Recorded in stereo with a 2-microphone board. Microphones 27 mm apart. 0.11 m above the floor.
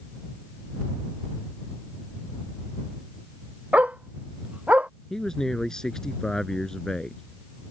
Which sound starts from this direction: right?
A dog barking, at 3.7 s.